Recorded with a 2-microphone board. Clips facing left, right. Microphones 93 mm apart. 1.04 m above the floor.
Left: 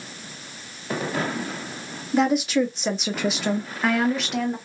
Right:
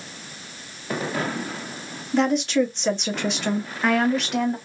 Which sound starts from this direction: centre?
A woman speaking, at 2.1 s.